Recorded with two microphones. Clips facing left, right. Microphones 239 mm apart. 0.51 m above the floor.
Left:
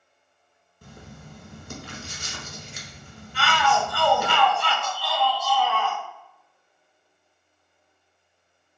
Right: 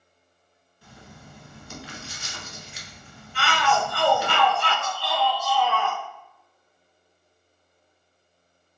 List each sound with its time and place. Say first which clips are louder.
0.8 s writing: left 3 dB; 60° left (ahead or behind), 1.1 m
3.3 s a shout: left 1 dB; 50° right (ahead or behind), 1.6 m